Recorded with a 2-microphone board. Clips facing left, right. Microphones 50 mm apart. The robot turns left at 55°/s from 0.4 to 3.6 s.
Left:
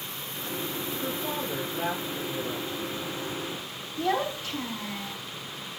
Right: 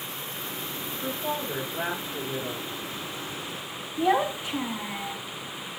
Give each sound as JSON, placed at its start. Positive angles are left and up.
{"t": 1.0, "sound": "a woman speaking", "azimuth_deg": 5, "distance_m": 4.5}
{"t": 4.0, "sound": "a child speaking", "side_deg": -15, "distance_m": 1.3}